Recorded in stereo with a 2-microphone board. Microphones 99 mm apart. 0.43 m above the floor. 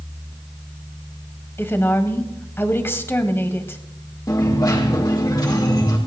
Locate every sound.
1.6 s a woman speaking: 25° left (ahead or behind), 2 m
4.3 s a dropped coin: 40° left (ahead or behind), 6.5 m